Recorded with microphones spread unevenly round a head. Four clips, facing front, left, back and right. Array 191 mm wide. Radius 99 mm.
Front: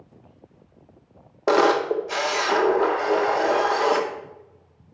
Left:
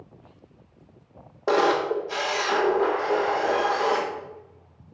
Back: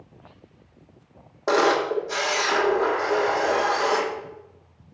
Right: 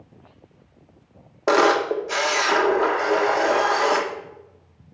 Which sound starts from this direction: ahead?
A camera shutter, at 1.5 s.